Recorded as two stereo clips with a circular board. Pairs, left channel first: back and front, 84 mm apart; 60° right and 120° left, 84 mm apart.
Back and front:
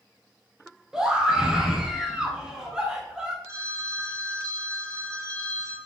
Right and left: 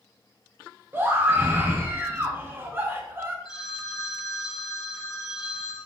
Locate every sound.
0.9 s a scream: 75° left, 0.7 m
3.5 s a phone ringing: 45° right, 1.5 m